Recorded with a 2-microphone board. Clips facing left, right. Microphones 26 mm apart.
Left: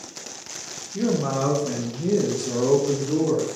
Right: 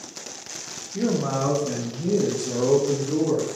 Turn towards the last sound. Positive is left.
turn(degrees=50)  # may be behind; listen again after turning